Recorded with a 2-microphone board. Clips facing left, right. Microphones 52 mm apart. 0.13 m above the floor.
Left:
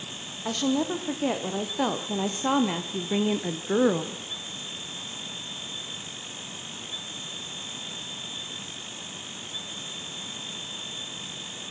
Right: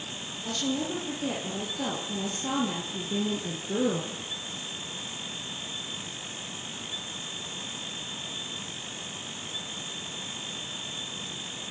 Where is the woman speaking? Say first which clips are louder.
Left 5 dB; 65° left (ahead or behind), 6 m; by 4.2 s 45° left (ahead or behind), 2.5 m.